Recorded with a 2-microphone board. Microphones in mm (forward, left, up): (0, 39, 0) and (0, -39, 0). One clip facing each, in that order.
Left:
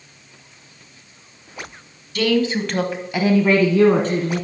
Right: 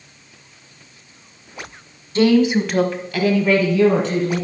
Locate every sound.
2.1 s a woman speaking: 30° right (ahead or behind), 1.2 m; by 4.4 s 50° left (ahead or behind), 2 m